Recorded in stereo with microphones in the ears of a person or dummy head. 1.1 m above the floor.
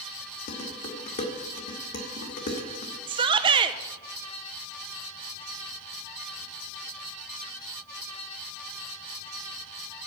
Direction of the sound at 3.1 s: 25° right (ahead or behind).